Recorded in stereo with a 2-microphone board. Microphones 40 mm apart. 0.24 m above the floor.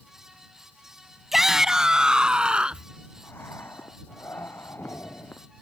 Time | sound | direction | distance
1.3 | a shout | 5° right (ahead or behind) | ?
3.2 | breathing | 65° left (ahead or behind) | ?